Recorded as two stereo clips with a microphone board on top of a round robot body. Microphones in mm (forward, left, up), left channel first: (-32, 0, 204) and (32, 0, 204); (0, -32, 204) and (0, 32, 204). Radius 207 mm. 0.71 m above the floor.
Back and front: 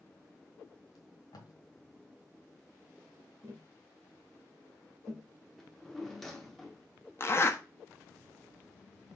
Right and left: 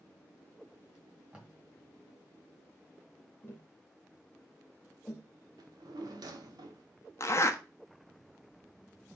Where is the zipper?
130° right, 1.3 m.